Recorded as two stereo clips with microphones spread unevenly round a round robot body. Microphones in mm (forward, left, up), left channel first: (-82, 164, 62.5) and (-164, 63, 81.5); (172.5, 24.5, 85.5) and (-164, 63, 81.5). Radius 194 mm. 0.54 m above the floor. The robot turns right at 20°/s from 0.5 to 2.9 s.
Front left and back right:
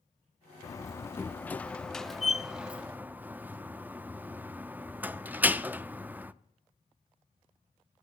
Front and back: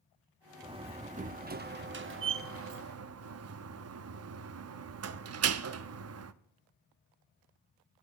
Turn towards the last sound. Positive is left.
turn(degrees=145)